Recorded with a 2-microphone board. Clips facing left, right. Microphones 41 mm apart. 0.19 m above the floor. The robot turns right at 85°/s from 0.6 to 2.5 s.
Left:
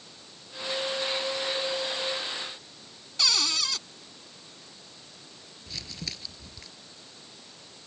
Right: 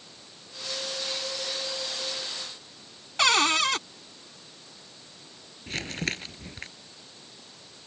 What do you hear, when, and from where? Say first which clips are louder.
3.2 s a cupboard door: right 7 dB; 45° right (ahead or behind)
5.7 s crumpling: right 9 dB; 50° right (ahead or behind)